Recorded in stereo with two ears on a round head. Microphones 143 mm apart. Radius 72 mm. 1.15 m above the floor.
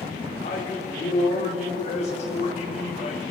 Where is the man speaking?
45° left (ahead or behind), 1.8 m.